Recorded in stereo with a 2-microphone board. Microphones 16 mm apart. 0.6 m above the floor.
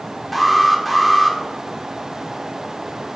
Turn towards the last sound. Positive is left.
turn(degrees=0)  # may be behind; listen again after turning